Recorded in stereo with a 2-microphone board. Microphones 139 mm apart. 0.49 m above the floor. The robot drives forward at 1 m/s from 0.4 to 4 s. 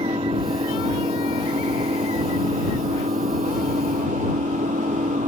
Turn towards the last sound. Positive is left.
turn(degrees=-65)  # may be behind; listen again after turning